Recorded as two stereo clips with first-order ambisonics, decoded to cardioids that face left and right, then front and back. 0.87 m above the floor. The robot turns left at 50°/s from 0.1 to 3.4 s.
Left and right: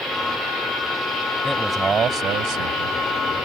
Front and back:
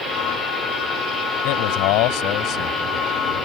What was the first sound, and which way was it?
A man speaking, 5° left.